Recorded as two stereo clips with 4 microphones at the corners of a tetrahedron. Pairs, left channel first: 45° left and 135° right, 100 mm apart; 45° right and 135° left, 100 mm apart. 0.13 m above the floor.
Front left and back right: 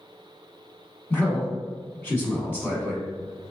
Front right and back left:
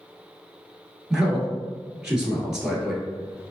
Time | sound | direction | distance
1.1 | a man speaking | 65° left | 1.1 m